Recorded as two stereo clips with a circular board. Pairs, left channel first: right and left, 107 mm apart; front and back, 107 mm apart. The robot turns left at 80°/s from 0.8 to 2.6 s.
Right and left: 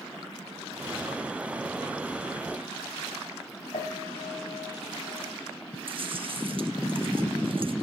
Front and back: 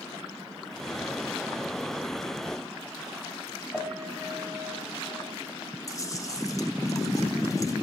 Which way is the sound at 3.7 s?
80° right.